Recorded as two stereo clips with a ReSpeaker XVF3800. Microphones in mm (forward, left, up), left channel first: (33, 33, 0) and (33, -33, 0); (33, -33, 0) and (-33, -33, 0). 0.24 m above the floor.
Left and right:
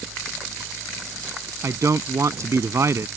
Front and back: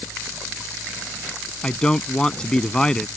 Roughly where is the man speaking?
Right.